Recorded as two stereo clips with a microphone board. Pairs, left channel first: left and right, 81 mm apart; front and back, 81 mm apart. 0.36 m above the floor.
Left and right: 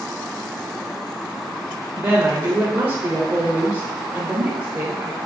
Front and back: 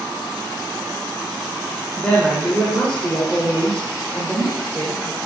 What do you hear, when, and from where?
1.9 s a woman speaking: 55° right, 1.5 m